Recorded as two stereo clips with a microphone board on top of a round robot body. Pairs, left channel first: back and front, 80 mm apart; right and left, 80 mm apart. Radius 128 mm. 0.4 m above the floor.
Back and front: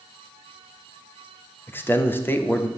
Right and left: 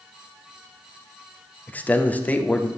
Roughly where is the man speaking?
Behind right.